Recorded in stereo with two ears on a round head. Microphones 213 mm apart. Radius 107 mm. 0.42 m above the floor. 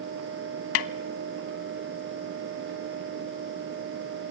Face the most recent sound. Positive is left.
turn(degrees=65)  # may be behind; listen again after turning